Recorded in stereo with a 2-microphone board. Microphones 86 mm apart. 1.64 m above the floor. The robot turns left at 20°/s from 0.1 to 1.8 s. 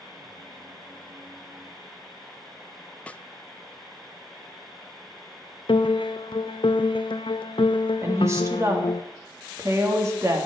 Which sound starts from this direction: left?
A piano, at 5.7 s.